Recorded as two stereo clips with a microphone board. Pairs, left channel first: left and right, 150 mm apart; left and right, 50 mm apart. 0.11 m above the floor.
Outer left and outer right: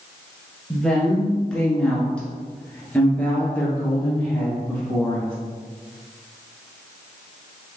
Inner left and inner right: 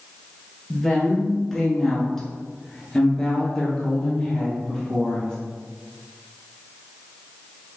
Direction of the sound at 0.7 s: Centre (ahead or behind).